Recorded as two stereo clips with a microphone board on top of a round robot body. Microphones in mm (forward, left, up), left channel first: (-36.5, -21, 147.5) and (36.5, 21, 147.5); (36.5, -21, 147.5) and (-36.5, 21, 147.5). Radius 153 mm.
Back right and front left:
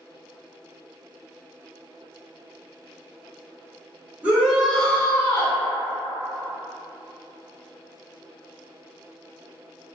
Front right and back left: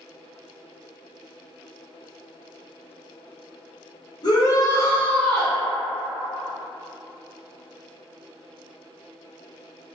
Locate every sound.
4.2 s a shout: 40° right, 1.3 m; by 5.6 s 120° right, 1.2 m